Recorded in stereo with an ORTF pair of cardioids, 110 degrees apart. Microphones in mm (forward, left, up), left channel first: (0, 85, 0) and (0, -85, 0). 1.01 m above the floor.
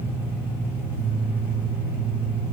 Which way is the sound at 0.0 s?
10° right.